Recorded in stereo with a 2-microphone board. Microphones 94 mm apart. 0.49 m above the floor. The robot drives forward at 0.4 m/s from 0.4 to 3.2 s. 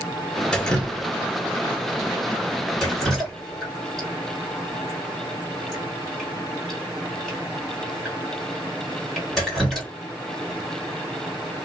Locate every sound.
0.5 s dripping: 10° left (ahead or behind), 0.6 m; by 9.9 s 5° left (ahead or behind), 1.4 m